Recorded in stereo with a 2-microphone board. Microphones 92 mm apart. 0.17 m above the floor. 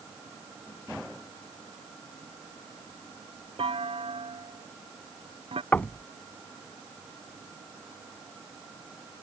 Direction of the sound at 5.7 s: 20° left (ahead or behind).